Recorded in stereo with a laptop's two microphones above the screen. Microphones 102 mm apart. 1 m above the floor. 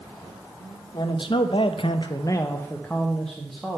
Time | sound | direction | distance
0.9 | a man speaking | 50° left (ahead or behind) | 0.8 m